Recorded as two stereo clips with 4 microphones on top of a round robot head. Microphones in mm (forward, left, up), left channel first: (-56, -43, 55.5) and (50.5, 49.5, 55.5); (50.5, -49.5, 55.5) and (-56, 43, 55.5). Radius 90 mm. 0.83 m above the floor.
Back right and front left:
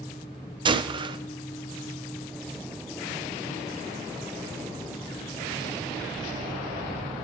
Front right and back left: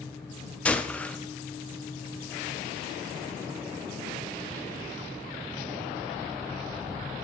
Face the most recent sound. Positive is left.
turn(degrees=35)